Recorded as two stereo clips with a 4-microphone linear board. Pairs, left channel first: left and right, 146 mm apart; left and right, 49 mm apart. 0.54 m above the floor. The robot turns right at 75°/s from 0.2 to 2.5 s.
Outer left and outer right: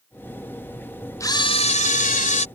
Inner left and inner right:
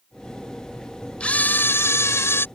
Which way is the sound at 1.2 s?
25° left.